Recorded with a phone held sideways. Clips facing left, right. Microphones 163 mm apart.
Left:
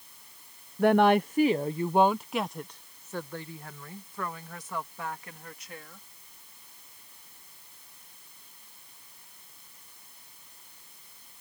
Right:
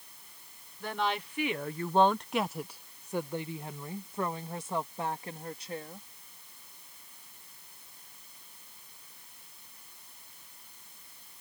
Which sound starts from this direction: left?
A woman speaking, at 0.8 s.